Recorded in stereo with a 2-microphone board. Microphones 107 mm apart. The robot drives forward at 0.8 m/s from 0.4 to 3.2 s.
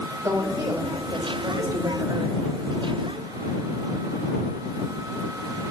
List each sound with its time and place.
0.2 s a woman speaking: 40° right (ahead or behind), 2.5 m; by 2.4 s 55° right (ahead or behind), 1.8 m